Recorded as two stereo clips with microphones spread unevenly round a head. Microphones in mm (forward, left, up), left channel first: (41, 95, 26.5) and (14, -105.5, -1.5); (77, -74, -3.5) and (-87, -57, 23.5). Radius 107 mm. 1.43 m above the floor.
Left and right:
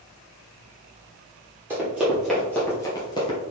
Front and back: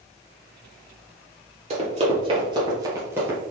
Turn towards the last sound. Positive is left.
turn(degrees=110)